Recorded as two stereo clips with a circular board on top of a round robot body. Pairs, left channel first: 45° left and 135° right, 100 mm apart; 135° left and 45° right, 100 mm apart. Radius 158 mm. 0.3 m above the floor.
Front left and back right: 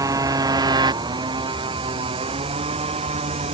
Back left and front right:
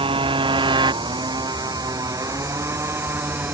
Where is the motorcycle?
80° right; by 3.5 s 115° right.